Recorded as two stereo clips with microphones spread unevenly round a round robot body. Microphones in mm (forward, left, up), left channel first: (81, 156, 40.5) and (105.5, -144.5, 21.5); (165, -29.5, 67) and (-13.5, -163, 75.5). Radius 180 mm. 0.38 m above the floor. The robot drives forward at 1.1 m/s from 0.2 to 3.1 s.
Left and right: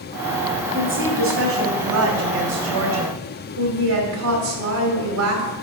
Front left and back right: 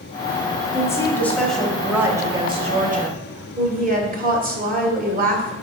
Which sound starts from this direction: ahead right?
A woman speaking, at 0.7 s.